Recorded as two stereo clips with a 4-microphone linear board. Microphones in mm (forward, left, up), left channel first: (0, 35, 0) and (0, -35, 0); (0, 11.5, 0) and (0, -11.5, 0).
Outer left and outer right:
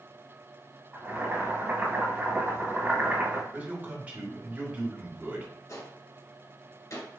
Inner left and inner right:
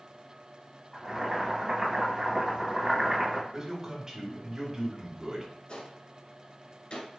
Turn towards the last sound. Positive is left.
turn(degrees=50)  # may be behind; listen again after turning